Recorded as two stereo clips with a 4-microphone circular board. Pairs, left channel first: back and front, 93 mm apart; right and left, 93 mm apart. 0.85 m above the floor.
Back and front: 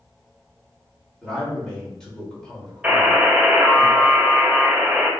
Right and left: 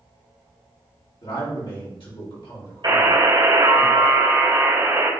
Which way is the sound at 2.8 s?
75° left.